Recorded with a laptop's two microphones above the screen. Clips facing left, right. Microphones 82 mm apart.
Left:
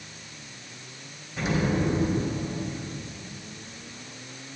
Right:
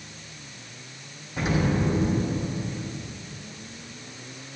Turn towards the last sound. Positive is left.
turn(degrees=-50)  # may be behind; listen again after turning